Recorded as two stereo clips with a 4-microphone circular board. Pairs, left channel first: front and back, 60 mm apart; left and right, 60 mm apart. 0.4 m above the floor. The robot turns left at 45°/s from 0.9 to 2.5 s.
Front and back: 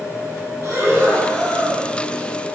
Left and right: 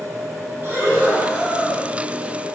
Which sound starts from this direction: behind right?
Breathing, at 0.6 s.